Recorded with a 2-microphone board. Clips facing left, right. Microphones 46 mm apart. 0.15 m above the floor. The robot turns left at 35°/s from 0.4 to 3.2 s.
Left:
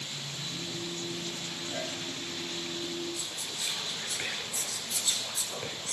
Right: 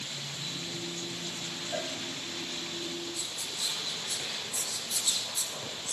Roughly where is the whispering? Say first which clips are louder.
Even; left.